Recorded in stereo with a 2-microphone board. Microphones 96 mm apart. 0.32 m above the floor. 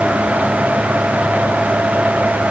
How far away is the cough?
No cough in this recording.